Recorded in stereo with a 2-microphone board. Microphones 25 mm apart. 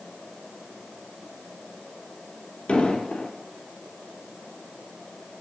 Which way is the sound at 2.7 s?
60° left (ahead or behind).